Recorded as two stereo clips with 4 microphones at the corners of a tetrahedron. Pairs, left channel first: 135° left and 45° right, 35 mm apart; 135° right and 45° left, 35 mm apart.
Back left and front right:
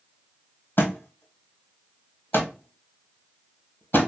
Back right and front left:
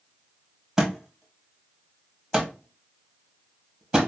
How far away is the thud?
About 1.7 m.